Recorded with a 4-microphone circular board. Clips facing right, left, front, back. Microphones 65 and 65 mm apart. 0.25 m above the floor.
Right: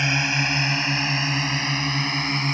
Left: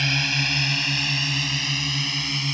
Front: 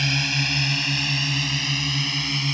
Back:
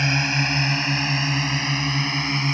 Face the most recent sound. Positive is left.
turn(degrees=-130)